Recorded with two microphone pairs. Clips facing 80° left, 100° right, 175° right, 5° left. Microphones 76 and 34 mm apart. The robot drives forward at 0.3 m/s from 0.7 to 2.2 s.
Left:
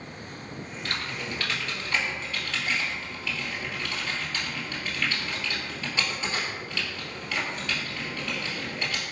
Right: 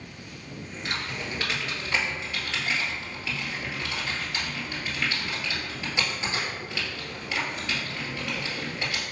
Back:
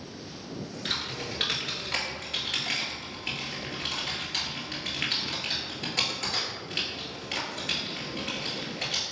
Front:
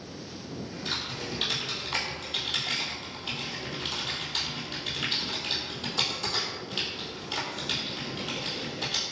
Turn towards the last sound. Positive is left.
turn(degrees=-170)